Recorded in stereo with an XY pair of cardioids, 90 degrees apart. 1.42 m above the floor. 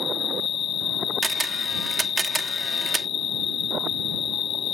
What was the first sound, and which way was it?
An insect, 65° left.